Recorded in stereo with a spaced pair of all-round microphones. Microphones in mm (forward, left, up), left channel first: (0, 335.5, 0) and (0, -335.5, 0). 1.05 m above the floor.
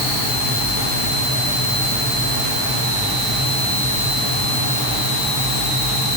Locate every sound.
Only background noise.